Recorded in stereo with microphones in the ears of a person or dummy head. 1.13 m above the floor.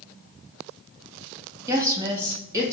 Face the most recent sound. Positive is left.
turn(degrees=-20)  # may be behind; listen again after turning